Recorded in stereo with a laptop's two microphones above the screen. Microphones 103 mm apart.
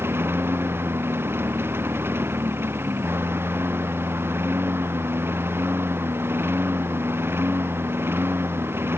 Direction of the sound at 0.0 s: 20° right (ahead or behind).